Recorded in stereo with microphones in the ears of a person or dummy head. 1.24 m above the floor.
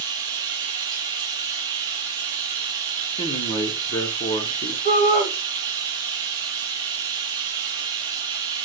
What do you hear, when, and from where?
0.0 s running water: 20° right (ahead or behind), 0.8 m
3.2 s a man speaking: 15° left (ahead or behind), 0.8 m
4.8 s a shout: 45° left (ahead or behind), 1.4 m